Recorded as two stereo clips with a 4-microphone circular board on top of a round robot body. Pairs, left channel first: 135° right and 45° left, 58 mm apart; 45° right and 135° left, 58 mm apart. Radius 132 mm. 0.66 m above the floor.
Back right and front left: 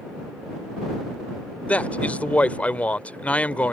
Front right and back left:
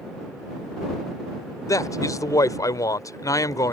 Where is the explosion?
No explosion in this recording.